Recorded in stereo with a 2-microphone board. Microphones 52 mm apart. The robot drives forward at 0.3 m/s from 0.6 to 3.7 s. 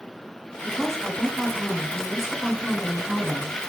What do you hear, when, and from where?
0.6 s a woman speaking: centre (ahead or behind), 1.8 m